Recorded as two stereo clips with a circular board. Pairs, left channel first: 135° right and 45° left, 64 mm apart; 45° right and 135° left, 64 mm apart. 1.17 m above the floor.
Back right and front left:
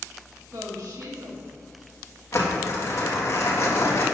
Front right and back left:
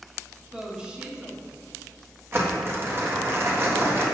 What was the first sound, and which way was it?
A woman speaking, 60° left.